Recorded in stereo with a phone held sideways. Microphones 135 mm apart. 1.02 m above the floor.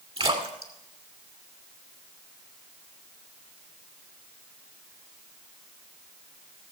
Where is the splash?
45° right (ahead or behind), 2 m.